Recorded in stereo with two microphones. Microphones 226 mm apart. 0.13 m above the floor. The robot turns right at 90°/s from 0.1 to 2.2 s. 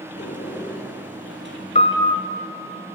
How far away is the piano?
About 1.7 m.